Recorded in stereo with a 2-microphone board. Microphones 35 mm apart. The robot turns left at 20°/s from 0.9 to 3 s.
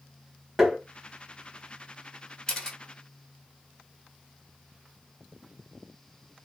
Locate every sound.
0.6 s tapping: 10° right (ahead or behind), 1.1 m
2.5 s a camera shutter: 20° left (ahead or behind), 1.2 m